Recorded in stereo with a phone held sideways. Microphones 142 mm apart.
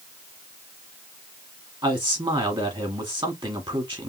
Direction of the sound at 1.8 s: 30° right (ahead or behind).